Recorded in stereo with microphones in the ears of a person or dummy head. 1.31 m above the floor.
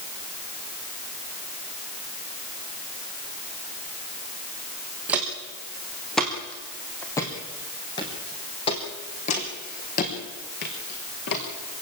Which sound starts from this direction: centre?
Footsteps, at 5.1 s.